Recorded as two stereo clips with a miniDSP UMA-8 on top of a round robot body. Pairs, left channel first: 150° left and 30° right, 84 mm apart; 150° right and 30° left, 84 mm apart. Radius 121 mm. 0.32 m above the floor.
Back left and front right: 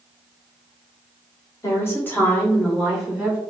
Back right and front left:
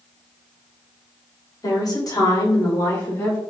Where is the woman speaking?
170° right, 1.9 m; by 3.4 s 105° right, 1.9 m.